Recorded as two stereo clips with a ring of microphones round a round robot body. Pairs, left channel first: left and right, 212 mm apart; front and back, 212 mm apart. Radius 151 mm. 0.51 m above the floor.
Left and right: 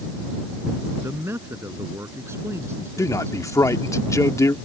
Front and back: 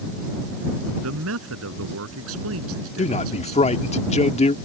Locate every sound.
1.0 s a man speaking: 170° right
3.0 s a man speaking: 25° left